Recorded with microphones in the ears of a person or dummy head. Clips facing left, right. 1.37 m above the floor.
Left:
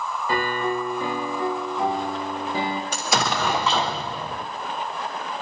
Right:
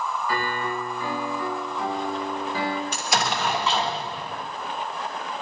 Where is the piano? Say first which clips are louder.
Left 7 dB; 30° left (ahead or behind), 1.1 m.